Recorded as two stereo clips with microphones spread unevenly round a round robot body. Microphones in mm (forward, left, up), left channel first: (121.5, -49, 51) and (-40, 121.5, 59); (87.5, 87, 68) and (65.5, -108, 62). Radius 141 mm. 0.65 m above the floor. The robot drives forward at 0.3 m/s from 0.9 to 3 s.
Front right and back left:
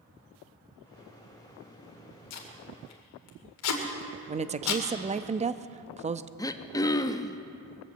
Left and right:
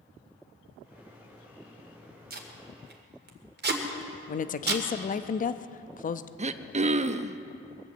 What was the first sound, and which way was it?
Tape being pulled, 55° right.